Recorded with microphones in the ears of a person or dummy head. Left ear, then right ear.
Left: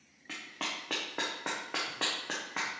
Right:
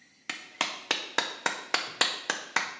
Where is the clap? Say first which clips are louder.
Right 5 dB; 60° right (ahead or behind), 0.6 m.